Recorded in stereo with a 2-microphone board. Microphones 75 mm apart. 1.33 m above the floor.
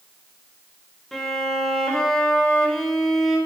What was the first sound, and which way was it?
A violin, 10° left (ahead or behind).